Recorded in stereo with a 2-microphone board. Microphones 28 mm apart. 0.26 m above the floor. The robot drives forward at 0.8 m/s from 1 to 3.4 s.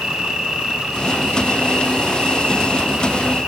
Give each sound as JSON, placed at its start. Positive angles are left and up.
{"t": 0.0, "sound": "an insect", "side_deg": -30, "distance_m": 6.5}